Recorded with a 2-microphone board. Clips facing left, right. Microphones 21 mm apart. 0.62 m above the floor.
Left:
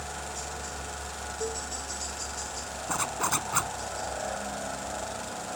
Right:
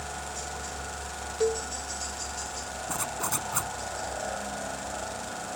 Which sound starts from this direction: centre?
A helicopter, at 0.0 s.